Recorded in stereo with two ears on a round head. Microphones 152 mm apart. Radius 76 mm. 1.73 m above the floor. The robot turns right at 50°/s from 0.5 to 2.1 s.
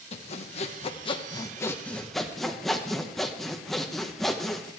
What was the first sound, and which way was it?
Sawing, 100° left.